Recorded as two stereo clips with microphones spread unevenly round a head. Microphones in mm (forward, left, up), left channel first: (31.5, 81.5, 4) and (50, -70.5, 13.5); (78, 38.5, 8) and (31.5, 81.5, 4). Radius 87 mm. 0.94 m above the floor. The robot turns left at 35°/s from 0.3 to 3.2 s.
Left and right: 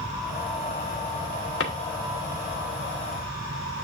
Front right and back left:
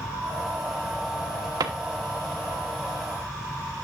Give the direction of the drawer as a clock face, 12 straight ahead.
8 o'clock.